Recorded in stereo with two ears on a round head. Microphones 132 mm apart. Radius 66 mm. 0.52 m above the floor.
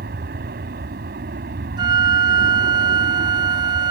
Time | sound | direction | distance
0.0 | an aircraft | 70° right (ahead or behind) | ?
1.8 | a flute | 30° right (ahead or behind) | ?